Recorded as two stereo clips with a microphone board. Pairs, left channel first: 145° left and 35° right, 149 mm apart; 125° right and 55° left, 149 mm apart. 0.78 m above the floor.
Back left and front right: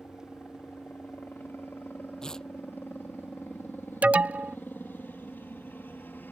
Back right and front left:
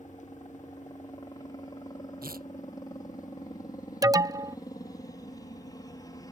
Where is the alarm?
35° left.